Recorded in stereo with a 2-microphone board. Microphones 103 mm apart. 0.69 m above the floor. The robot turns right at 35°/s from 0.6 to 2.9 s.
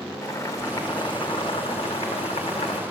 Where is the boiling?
30° left, 0.8 m; by 2.8 s 110° left, 0.8 m.